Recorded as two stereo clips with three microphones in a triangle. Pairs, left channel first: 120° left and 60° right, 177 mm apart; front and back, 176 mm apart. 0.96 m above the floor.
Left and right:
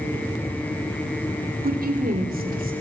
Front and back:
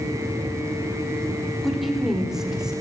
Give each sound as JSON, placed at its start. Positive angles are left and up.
{"t": 1.6, "sound": "a woman speaking", "azimuth_deg": -90, "distance_m": 3.0}